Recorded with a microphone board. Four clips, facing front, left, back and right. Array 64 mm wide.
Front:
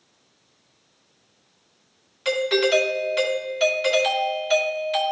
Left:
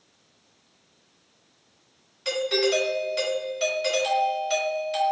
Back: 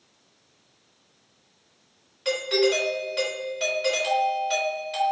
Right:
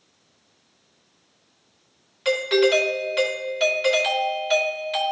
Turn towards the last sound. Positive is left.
turn(degrees=-65)